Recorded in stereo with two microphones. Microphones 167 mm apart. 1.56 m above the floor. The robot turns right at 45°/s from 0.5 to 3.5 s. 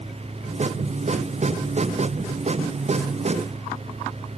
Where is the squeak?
I don't hear a squeak.